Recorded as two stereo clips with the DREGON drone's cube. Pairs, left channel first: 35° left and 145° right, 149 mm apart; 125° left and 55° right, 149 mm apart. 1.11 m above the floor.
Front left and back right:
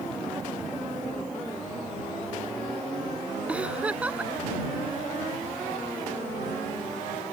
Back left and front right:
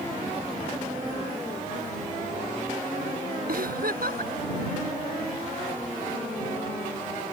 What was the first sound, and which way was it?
A giggle, 65° right.